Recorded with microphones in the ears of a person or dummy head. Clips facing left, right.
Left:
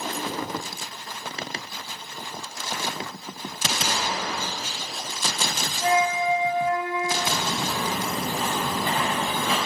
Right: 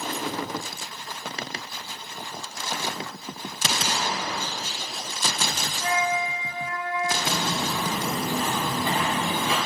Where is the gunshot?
50° right (ahead or behind), 3 m.